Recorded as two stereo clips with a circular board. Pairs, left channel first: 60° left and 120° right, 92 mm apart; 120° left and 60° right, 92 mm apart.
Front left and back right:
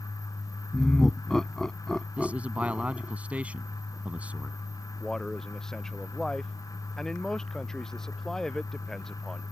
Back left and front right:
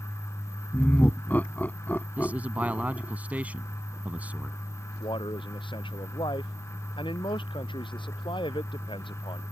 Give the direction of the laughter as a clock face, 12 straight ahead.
7 o'clock.